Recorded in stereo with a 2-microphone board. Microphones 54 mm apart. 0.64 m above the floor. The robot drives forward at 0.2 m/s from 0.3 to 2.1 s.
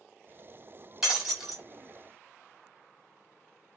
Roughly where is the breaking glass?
Centre.